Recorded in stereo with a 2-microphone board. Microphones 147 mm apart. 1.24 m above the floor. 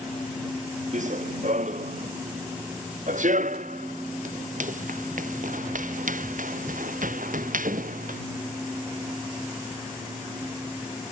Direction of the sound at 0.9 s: 55° right (ahead or behind).